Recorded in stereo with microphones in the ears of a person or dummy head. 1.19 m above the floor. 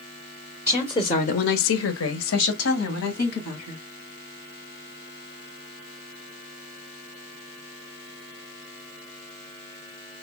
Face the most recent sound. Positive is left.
turn(degrees=55)  # may be behind; listen again after turning